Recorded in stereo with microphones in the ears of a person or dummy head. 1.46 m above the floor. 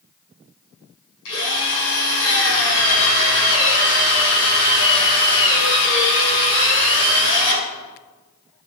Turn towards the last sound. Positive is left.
turn(degrees=75)  # may be behind; listen again after turning